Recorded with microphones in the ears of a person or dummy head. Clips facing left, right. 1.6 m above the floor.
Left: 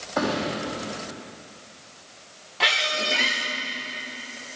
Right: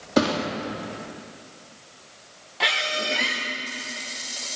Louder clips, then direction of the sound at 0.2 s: Right 3 dB; 50° right (ahead or behind).